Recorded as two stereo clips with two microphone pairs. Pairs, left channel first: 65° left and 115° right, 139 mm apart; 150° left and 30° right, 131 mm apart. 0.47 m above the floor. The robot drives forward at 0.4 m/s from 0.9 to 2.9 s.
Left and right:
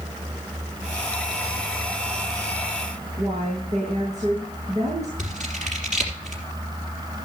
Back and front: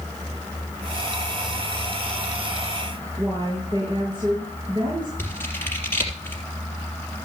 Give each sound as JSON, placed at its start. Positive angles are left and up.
{"t": 3.2, "sound": "a woman speaking", "azimuth_deg": -85, "distance_m": 7.0}
{"t": 5.2, "sound": "scissors", "azimuth_deg": -140, "distance_m": 3.5}